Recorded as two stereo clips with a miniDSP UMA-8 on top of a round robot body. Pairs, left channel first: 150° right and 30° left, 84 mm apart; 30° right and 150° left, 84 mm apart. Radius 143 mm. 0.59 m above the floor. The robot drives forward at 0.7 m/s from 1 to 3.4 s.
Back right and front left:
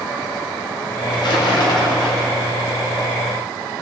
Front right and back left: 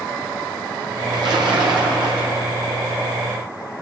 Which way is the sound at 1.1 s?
Straight behind.